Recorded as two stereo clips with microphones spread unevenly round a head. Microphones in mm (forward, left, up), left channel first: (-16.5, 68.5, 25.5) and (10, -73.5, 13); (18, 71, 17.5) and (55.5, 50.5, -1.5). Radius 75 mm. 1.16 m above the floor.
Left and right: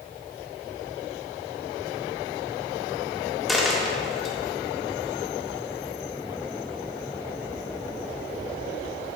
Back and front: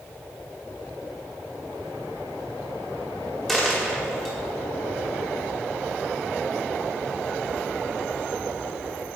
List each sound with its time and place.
3.5 s a dropped coin: straight behind, 0.8 m